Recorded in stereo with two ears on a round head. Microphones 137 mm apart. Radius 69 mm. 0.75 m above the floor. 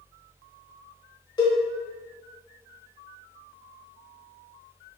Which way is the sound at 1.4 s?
30° left (ahead or behind).